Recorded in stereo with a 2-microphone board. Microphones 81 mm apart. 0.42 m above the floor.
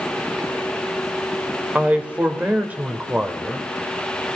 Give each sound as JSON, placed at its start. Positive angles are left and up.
{"t": 1.8, "sound": "a man speaking", "side_deg": -20, "distance_m": 1.1}